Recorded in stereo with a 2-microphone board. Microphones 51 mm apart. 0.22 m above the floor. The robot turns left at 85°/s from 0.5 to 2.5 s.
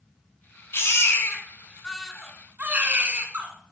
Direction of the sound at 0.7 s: 110° left.